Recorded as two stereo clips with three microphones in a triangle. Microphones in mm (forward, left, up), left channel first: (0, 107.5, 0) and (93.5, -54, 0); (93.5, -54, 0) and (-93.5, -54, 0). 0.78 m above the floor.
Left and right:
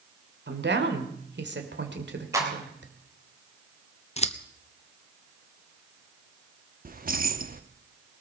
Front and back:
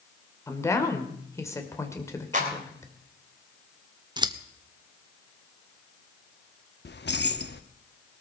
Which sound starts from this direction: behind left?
Scissors, at 4.2 s.